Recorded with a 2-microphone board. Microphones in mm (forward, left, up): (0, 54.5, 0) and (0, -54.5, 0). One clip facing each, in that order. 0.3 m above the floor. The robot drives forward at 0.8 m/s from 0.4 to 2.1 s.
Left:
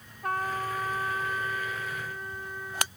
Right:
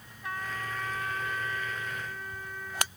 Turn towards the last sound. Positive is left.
turn(degrees=15)  # may be behind; listen again after turning